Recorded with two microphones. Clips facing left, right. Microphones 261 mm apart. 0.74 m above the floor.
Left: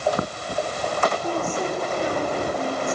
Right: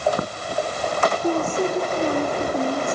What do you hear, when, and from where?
1.2 s a woman speaking: 45° right (ahead or behind), 1.5 m